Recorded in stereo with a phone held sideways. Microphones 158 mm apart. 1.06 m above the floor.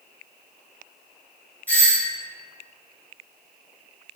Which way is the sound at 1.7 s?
10° left (ahead or behind).